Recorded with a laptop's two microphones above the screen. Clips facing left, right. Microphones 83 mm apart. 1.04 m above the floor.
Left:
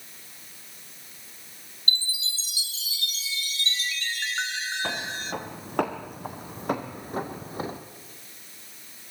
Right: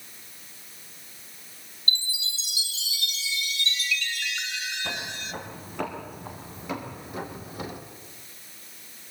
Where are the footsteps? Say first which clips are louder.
Left 3 dB; 65° left (ahead or behind), 4 m; by 7.8 s 30° left (ahead or behind), 1.8 m.